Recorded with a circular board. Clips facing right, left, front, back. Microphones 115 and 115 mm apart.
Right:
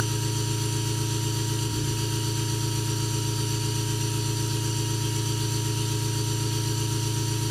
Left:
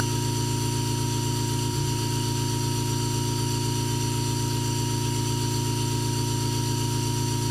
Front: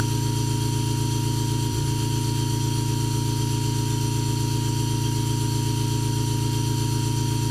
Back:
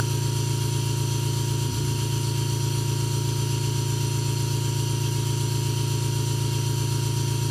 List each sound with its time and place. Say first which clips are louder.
0.0 s an engine running: left 3 dB, front 3 dB; 170° right, 1.0 m